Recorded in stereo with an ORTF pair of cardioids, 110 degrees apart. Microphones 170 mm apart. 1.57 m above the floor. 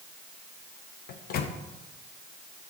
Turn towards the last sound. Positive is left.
turn(degrees=65)